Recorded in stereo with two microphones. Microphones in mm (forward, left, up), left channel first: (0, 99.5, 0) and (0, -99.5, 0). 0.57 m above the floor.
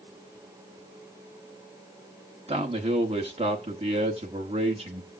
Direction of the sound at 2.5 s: 30° right (ahead or behind).